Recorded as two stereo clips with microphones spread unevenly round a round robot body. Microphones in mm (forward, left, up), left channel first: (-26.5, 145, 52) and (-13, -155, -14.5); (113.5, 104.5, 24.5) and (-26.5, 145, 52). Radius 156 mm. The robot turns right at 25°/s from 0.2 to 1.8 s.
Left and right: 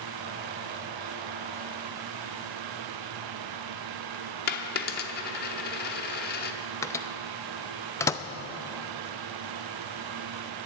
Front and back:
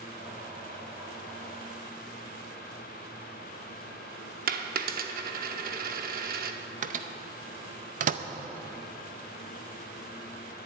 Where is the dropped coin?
150° left, 1.0 m.